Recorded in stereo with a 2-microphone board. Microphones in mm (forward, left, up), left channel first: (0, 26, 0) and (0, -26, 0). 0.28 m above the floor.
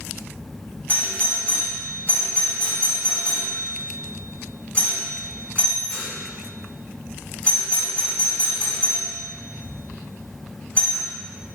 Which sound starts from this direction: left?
A doorbell, at 0.9 s.